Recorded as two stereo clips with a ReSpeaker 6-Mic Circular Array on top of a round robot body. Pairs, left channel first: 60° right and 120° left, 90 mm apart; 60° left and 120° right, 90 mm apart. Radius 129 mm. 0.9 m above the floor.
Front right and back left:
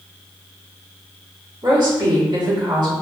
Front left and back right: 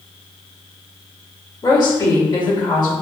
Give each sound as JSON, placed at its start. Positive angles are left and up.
{"t": 1.6, "sound": "a woman speaking", "azimuth_deg": 90, "distance_m": 1.5}